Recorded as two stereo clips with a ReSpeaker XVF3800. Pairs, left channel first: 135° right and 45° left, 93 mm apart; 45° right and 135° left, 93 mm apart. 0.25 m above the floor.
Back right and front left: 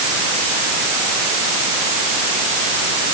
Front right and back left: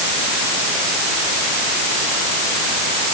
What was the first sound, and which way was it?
Only background noise.